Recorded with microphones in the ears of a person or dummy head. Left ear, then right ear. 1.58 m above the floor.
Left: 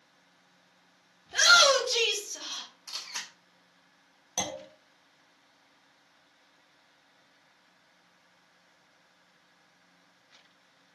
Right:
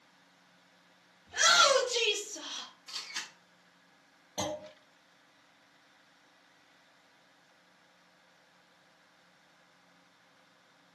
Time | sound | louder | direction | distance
1.3 | a shout | left 4 dB | 60° left (ahead or behind) | 1.2 m
2.9 | a camera shutter | left 2 dB | 55° left (ahead or behind) | 1.0 m
4.4 | a clunk | left 2 dB | 75° left (ahead or behind) | 1.0 m